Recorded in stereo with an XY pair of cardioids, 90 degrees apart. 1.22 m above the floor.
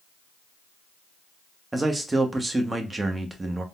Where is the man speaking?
20° right, 0.9 m.